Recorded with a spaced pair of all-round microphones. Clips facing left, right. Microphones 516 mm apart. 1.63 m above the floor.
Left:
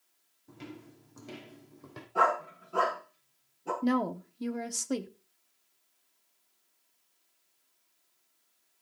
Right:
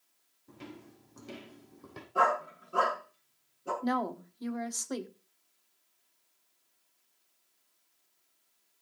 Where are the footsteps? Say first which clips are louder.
Left 2 dB; centre (ahead or behind), 4 m.